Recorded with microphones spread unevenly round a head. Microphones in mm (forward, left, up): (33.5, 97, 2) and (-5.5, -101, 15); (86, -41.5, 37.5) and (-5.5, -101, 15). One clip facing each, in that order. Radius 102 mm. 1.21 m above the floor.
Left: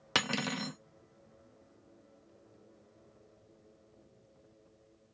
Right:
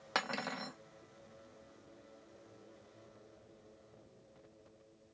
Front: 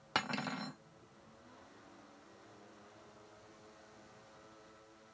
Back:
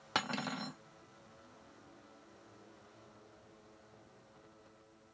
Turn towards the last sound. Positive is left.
turn(degrees=110)